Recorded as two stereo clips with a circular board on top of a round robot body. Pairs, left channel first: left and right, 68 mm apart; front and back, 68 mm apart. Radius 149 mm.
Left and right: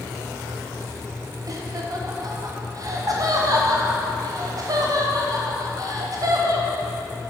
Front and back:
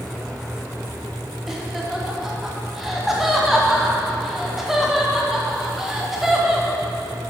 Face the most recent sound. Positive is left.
turn(degrees=-95)